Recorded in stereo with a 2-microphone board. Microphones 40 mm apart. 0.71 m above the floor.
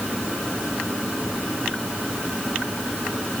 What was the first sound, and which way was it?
Only background noise.